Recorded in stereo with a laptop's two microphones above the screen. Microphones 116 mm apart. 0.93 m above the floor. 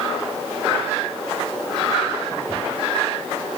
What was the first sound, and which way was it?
Only background noise.